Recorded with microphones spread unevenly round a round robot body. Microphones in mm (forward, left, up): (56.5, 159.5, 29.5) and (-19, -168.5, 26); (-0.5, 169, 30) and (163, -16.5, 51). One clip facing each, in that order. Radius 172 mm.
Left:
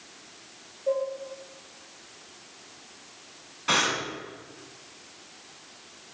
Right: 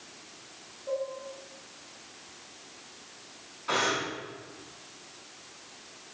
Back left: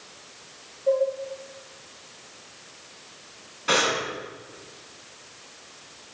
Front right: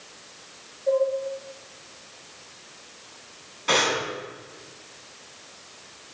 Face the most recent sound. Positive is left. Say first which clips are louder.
# even, even
turn(degrees=45)